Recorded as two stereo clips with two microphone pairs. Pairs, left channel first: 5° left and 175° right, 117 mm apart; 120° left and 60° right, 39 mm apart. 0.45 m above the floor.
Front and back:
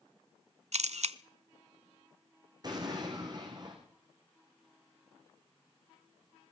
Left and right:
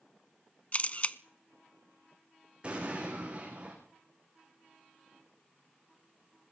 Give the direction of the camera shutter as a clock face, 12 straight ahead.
6 o'clock.